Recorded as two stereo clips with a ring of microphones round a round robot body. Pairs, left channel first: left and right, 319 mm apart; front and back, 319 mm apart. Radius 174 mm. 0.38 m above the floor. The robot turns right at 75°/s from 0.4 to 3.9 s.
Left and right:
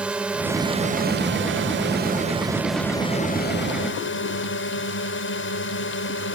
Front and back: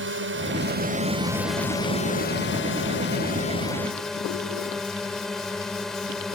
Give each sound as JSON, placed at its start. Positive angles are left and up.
{"t": 0.0, "sound": "a drone", "azimuth_deg": -175}